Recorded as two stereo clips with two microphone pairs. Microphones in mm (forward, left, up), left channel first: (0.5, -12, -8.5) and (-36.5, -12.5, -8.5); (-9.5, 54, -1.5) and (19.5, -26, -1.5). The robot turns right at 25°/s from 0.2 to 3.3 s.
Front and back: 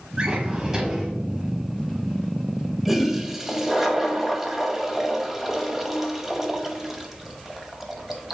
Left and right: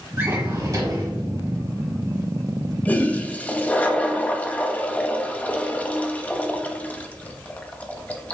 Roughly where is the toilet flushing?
Behind left.